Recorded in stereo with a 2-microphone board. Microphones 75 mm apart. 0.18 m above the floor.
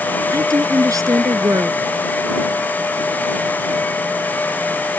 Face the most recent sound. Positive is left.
turn(degrees=-45)  # may be behind; listen again after turning